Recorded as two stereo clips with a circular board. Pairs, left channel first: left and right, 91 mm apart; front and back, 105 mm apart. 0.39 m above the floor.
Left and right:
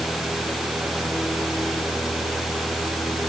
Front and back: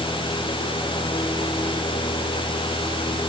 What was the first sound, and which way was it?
Only background noise.